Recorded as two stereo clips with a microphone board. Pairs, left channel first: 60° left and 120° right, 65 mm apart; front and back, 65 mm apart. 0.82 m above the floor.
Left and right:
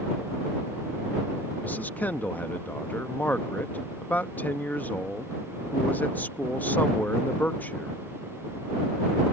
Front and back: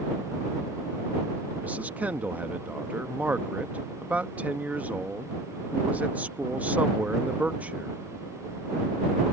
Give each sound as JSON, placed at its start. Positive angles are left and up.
{"t": 1.6, "sound": "a man speaking", "azimuth_deg": 120}